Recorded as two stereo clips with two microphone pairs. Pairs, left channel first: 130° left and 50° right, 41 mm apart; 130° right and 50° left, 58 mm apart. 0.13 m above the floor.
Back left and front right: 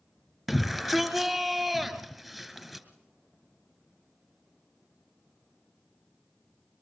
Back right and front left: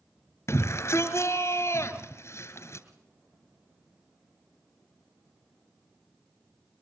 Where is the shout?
140° right, 2.5 m.